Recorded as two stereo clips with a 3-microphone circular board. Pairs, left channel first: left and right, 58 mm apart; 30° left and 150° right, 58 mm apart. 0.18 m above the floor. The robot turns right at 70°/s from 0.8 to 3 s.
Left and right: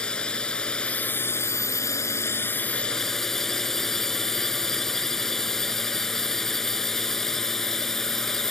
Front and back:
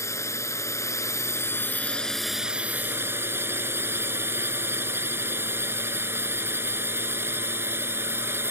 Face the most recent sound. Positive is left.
turn(degrees=170)